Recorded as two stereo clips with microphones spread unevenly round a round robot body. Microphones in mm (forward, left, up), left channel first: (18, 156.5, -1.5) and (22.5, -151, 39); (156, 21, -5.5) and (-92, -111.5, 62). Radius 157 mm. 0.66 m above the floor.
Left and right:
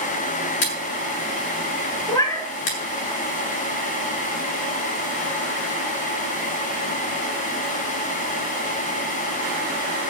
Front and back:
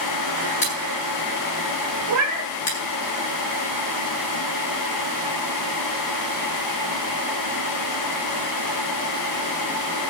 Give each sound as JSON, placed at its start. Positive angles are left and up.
{"t": 0.6, "sound": "scissors", "azimuth_deg": 95, "distance_m": 7.0}
{"t": 2.1, "sound": "a cat meowing", "azimuth_deg": 170, "distance_m": 1.8}